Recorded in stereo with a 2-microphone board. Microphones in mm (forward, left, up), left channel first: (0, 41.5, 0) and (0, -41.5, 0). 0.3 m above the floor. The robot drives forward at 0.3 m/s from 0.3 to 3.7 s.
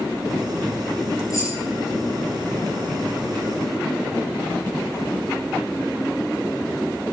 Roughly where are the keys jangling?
Left.